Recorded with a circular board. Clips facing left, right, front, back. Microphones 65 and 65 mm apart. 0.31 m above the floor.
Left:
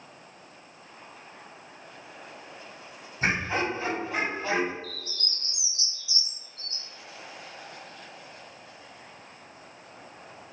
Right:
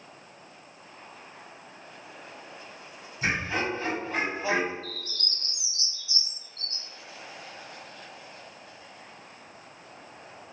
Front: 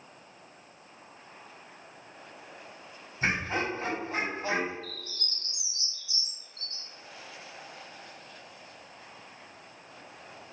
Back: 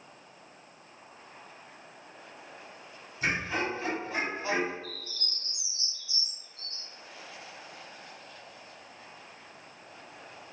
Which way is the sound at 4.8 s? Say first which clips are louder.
Right 1 dB, even; 20° left.